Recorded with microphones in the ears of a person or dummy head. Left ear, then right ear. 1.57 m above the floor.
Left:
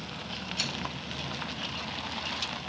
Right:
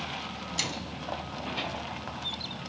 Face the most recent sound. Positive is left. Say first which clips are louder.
# even
turn(degrees=-55)  # may be behind; listen again after turning